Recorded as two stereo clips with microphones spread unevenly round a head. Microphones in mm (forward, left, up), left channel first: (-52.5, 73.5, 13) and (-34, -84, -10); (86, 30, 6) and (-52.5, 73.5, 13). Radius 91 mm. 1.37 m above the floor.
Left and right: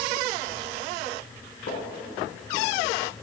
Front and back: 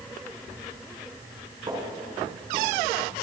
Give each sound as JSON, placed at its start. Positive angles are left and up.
{"t": 1.7, "sound": "footsteps", "azimuth_deg": 105, "distance_m": 3.5}